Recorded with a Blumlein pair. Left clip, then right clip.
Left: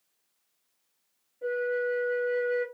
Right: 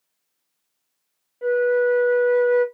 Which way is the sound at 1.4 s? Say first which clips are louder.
Right 10 dB; 55° right.